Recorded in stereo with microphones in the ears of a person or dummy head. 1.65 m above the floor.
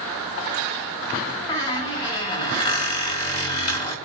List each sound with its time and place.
1.5 s a squeak: 25° left (ahead or behind), 1.3 m